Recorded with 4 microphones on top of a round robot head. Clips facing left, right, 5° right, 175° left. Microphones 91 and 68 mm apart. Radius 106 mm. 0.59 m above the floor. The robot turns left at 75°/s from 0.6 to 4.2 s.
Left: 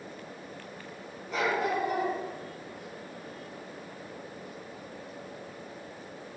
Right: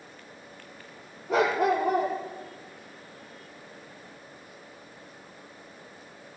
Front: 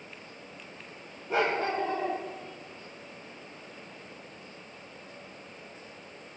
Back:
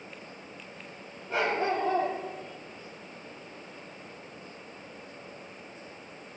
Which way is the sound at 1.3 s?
85° right.